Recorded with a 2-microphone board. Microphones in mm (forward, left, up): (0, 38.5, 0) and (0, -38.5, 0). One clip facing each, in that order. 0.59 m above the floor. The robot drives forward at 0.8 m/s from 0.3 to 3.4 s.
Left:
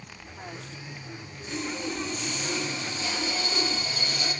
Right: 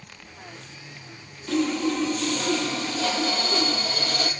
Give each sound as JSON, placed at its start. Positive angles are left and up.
{"t": 1.5, "sound": "sawing", "side_deg": -80, "distance_m": 3.5}